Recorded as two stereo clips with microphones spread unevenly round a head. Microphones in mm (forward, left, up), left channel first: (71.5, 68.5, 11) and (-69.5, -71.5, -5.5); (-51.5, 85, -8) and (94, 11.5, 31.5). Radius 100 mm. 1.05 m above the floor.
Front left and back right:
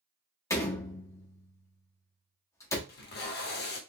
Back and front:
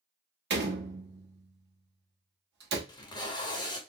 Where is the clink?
I don't hear a clink.